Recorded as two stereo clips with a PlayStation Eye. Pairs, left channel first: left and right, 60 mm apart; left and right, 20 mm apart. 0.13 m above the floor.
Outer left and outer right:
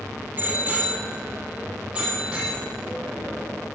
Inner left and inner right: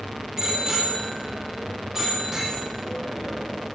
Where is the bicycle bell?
30° right (ahead or behind), 2.5 m; by 3.5 s 10° right (ahead or behind), 4 m.